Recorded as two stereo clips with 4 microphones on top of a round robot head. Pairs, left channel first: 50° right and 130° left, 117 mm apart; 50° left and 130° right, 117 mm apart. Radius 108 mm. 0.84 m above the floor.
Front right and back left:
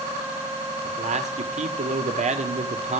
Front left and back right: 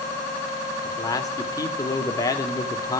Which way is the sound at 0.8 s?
110° left.